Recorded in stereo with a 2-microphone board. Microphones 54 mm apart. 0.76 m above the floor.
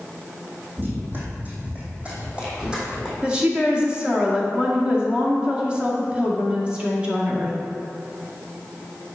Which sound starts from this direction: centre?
A woman speaking, at 3.2 s.